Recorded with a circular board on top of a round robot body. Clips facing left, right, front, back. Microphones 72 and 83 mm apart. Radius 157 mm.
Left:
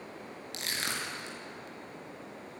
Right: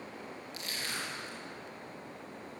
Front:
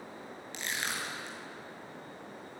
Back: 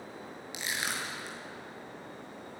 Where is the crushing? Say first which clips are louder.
Left 4 dB, back 1 dB; 100° left, 5.5 m.